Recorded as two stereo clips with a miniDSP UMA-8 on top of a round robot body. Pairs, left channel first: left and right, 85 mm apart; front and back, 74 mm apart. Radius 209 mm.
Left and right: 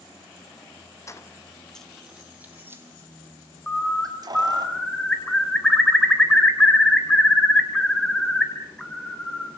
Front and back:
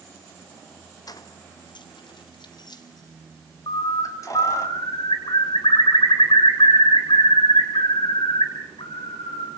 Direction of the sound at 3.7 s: 10° left.